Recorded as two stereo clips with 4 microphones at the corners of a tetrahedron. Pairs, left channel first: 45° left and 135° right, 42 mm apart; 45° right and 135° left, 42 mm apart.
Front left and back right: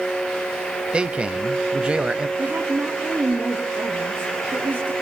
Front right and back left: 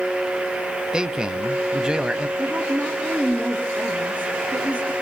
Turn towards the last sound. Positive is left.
turn(degrees=-175)